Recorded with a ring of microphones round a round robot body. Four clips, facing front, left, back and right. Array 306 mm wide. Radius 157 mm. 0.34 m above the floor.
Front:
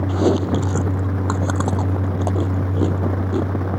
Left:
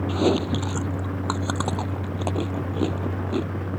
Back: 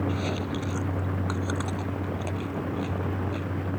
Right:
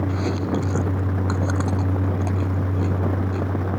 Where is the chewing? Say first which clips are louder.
Left 2 dB, front 12 dB; 20° left.